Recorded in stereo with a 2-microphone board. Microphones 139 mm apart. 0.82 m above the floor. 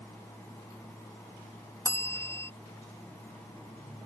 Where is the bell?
20° left (ahead or behind).